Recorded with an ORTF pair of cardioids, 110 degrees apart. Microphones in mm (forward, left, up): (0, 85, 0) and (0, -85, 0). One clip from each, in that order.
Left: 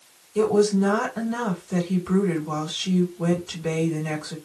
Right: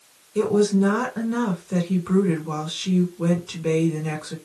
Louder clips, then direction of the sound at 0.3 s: Even; 10° right.